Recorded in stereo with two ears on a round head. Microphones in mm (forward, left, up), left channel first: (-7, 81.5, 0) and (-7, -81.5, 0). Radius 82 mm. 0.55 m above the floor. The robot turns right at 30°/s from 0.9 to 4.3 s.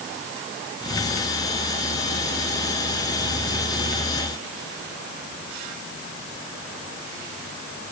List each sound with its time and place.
Only background noise.